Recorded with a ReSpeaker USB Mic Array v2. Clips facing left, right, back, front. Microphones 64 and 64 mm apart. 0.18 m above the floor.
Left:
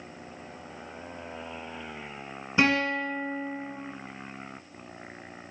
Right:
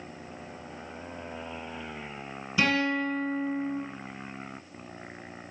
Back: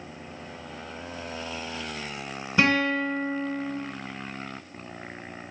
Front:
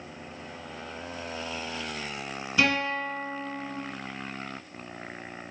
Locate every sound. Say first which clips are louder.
2.6 s a guitar: left 1 dB, back 3 dB; 135° left, 1.0 m